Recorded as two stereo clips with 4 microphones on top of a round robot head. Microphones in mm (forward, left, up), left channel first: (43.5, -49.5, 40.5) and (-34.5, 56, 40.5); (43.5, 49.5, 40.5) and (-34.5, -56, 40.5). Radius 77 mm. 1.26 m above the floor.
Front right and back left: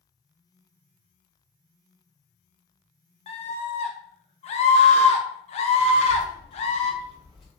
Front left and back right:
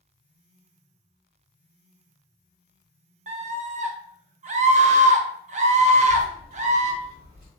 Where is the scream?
95° right, 0.6 m.